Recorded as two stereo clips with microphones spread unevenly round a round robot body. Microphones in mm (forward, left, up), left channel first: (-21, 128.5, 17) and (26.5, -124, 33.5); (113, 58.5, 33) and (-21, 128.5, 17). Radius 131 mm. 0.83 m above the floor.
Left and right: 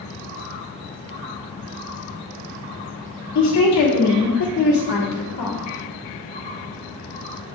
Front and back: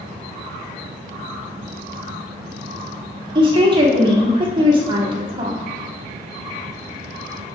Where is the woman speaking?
100° left, 2.0 m.